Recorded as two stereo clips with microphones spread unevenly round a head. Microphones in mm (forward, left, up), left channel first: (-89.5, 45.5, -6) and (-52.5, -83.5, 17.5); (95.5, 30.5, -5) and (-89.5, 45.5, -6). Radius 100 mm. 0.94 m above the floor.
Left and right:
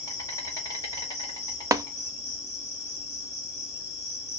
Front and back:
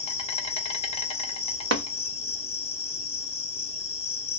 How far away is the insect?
About 0.8 m.